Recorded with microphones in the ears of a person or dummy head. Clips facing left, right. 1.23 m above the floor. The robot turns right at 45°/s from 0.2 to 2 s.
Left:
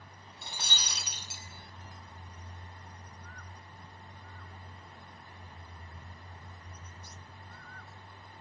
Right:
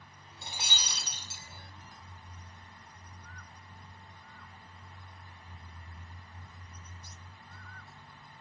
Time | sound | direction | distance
0.4 | breaking glass | 25° right | 4.5 m